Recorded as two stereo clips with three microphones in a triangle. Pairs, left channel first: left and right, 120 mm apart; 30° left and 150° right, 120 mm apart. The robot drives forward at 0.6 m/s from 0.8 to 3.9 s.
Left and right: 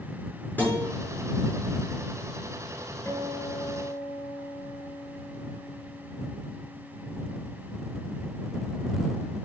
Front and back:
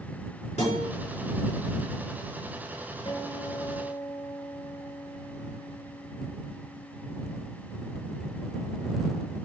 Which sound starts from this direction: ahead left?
A guitar, at 3.0 s.